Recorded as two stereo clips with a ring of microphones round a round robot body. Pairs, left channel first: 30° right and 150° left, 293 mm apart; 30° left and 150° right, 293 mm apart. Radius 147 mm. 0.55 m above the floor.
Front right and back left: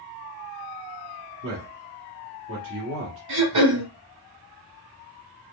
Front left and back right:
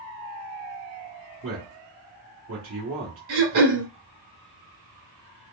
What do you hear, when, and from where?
1.4 s a man speaking: straight behind, 1.3 m
3.3 s throat clearing: 170° left, 2.0 m